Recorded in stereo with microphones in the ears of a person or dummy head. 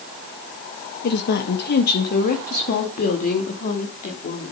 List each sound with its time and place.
1.0 s a woman speaking: 60° left (ahead or behind), 1.6 m; by 4.5 s 45° left (ahead or behind), 3.5 m